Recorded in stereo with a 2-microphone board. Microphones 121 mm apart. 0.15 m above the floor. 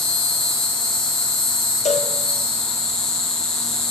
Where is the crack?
I don't hear a crack.